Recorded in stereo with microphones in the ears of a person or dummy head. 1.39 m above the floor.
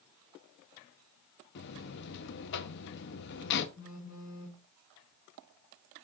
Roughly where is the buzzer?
Left.